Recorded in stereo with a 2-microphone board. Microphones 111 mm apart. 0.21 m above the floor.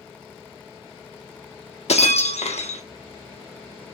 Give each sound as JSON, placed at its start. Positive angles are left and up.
{"t": 1.9, "sound": "breaking glass", "side_deg": 80, "distance_m": 0.7}